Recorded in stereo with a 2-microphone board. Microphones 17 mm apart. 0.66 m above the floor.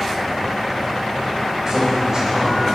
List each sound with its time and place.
1.7 s a man speaking: 30° right (ahead or behind), 3 m